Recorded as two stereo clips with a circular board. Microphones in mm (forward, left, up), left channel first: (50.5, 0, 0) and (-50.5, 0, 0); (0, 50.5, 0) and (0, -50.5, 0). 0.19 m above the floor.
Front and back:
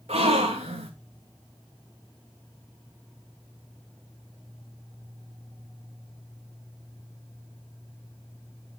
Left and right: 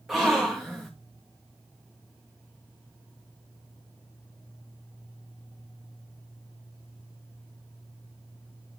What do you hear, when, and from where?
0.1 s a gasp: 175° right, 3 m